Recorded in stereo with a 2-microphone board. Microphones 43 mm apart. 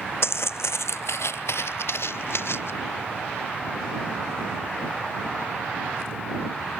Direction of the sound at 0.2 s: 75° left (ahead or behind).